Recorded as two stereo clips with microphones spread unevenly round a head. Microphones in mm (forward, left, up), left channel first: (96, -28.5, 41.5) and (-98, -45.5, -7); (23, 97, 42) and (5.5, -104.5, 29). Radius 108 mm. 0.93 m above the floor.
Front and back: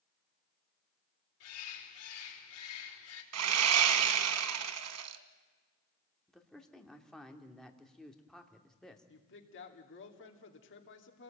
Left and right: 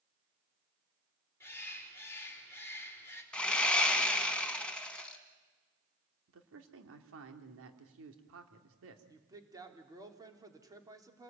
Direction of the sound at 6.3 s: 85° right.